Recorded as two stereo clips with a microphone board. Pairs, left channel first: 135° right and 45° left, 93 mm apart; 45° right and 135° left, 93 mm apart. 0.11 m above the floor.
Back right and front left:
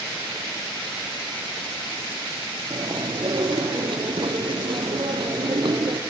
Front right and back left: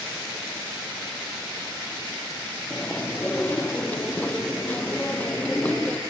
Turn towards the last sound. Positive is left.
turn(degrees=30)